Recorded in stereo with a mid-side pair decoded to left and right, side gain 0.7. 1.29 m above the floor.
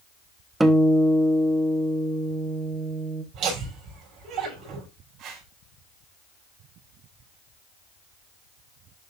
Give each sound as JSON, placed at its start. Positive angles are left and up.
{"t": 0.6, "sound": "a guitar", "azimuth_deg": -15, "distance_m": 1.1}
{"t": 3.3, "sound": "laughter", "azimuth_deg": -50, "distance_m": 6.0}
{"t": 5.2, "sound": "a whoosh", "azimuth_deg": -55, "distance_m": 4.5}